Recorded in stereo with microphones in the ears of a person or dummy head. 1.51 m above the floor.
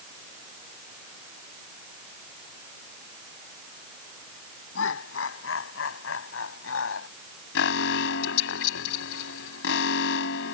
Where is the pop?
No pop in this recording.